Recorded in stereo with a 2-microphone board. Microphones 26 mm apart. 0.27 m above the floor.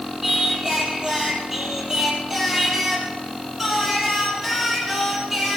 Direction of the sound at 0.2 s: 20° right (ahead or behind).